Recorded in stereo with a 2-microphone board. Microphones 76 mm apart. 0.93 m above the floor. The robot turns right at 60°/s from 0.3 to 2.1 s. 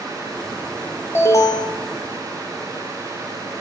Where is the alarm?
30° left, 0.7 m; by 1.8 s 70° left, 0.7 m.